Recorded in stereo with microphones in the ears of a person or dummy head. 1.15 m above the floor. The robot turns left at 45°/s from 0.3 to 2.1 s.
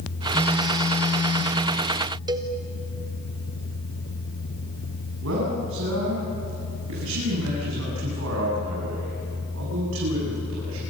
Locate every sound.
0.3 s a phone buzzing: 165° right, 6 m; by 1.6 s 140° left, 6 m
2.3 s a cowbell: 20° right (ahead or behind), 1.5 m
5.2 s a man speaking: 75° right (ahead or behind), 8.5 m